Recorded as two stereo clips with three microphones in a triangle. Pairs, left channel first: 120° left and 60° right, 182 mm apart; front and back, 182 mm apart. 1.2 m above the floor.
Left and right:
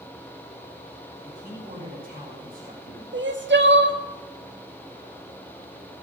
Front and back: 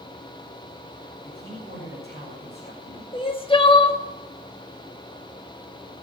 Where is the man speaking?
25° right, 6 m.